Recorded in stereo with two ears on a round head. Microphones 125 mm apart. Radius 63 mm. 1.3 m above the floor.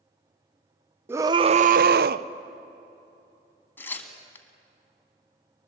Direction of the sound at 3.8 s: 15° left (ahead or behind).